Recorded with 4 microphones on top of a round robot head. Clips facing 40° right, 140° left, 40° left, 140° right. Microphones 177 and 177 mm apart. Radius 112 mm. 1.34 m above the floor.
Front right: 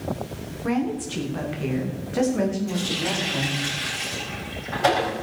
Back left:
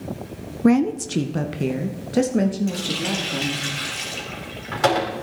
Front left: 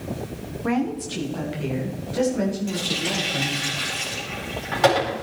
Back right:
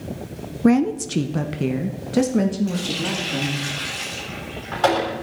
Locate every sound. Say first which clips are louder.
0.6 s a woman speaking: back left 8 dB, back right 7 dB; 175° left, 0.7 m; by 3.7 s 165° right, 3 m
2.7 s a running tap: back left 1 dB, back right 2 dB; 120° left, 4.5 m